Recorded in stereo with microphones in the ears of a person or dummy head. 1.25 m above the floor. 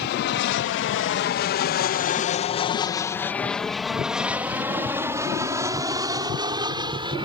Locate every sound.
0.0 s an aircraft: 55° left (ahead or behind); by 7.3 s 25° right (ahead or behind)